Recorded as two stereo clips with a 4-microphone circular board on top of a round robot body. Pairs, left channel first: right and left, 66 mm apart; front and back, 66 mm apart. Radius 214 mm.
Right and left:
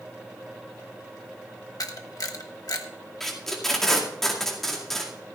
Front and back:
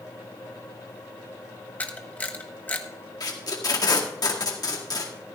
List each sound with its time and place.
1.8 s a camera shutter: 65° right, 1.3 m
3.2 s tape being pulled: 5° right, 2 m